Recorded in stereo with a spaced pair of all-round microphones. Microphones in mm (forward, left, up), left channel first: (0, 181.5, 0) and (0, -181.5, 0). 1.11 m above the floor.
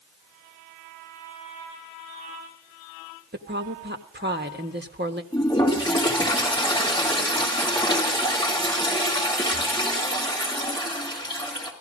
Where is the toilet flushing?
15° left (ahead or behind), 3.5 m.